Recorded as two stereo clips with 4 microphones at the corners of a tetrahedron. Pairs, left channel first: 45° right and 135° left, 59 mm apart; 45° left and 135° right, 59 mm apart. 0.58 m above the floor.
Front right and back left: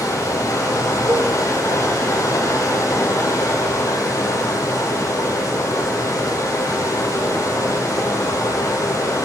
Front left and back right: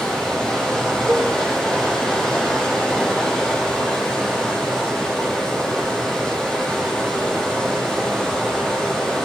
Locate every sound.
0.0 s running water: 40° right, 5.5 m
1.1 s a cowbell: 175° left, 1.6 m